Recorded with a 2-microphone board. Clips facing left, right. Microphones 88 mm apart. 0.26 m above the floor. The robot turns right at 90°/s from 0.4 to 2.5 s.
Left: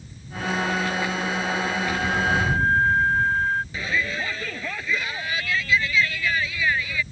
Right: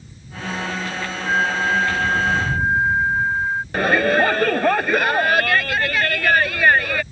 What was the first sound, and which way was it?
A flute, 120° right.